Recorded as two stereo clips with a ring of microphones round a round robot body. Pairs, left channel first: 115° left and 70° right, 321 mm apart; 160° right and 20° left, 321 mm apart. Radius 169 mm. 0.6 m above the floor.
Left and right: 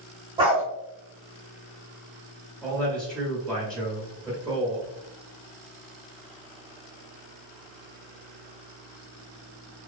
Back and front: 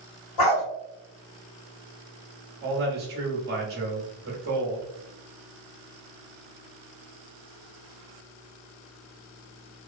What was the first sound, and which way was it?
A dog barking, 145° right.